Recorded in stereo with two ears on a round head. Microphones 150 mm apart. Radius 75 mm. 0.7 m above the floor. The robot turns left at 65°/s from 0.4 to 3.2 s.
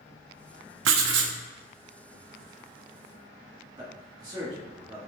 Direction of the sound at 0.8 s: 80° right.